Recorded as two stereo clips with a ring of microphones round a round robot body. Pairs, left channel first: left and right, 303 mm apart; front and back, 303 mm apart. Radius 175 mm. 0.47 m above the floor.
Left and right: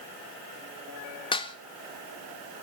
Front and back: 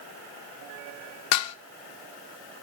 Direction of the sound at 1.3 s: 20° left.